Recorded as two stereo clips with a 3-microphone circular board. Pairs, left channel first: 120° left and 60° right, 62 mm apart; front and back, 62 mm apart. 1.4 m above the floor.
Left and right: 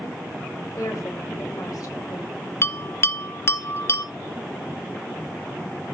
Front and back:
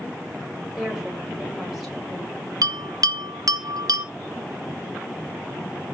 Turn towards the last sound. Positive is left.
turn(degrees=170)